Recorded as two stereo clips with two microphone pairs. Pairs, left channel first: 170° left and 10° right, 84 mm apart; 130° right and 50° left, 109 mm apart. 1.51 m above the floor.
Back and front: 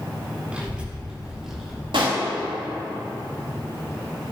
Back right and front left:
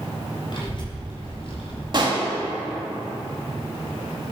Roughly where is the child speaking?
Right.